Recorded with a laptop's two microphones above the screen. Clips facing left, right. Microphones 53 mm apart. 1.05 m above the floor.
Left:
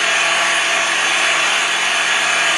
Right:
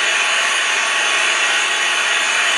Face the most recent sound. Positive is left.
turn(degrees=70)  # may be behind; listen again after turning